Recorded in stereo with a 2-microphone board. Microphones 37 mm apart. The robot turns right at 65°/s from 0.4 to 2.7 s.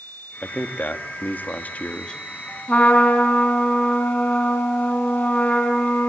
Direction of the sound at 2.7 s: 40° left (ahead or behind).